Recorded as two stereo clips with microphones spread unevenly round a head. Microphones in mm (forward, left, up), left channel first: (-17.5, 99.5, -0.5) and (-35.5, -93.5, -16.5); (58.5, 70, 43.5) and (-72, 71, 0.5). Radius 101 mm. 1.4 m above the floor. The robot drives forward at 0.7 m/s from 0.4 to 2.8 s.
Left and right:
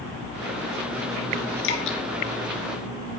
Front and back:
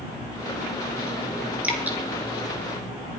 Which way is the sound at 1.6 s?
90° left.